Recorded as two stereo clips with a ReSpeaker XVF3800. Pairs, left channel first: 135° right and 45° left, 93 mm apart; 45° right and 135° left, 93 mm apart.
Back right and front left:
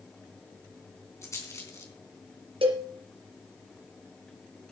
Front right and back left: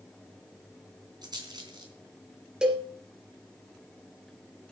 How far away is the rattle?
About 3 m.